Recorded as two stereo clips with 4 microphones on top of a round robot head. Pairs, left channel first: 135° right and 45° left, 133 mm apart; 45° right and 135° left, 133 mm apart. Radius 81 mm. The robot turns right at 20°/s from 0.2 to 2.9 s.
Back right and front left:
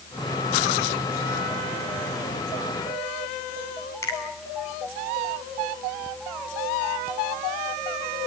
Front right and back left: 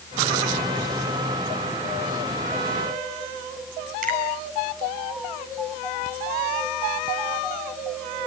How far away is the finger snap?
About 8 m.